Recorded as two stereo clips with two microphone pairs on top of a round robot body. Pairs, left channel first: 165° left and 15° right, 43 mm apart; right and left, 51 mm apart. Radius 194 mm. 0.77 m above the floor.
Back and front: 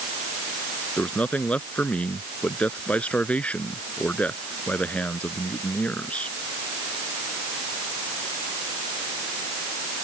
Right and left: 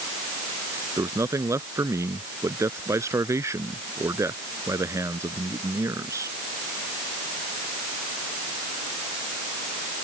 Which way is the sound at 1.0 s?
110° left.